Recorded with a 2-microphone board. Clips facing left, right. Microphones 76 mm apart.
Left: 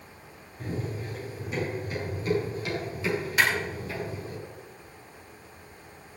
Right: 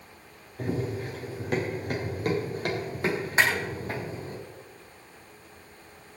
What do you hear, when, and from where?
0.6 s running footsteps: 75° right (ahead or behind), 5.5 m; by 4.4 s 35° right (ahead or behind), 5 m
3.4 s a clap: 30° right (ahead or behind), 6.5 m